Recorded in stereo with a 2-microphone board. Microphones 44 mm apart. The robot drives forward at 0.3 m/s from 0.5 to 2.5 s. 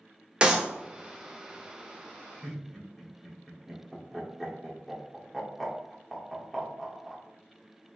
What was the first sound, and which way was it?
A clap, 20° right (ahead or behind).